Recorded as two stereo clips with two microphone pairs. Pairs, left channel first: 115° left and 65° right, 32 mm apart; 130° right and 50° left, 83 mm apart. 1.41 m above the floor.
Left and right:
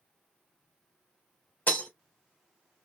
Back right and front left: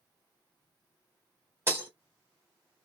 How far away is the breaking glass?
About 2 m.